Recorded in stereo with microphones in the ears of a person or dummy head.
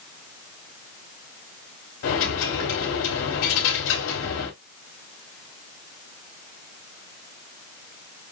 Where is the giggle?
No giggle in this recording.